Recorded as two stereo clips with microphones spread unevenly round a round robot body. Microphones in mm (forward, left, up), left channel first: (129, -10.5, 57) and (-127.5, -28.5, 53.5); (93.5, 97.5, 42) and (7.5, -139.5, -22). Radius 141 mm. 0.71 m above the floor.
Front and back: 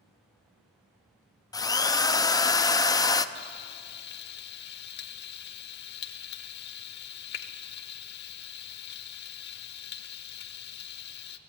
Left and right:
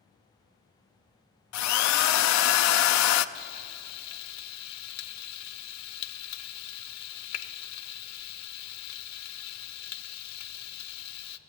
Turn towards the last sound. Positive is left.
turn(degrees=60)